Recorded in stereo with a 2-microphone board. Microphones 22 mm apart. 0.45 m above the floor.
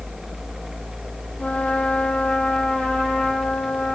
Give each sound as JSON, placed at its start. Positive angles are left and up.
{"t": 1.4, "sound": "a trumpet", "side_deg": 75, "distance_m": 6.5}